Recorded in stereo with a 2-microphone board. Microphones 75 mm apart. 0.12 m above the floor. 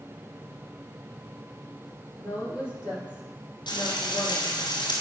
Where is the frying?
75° left (ahead or behind), 2 m.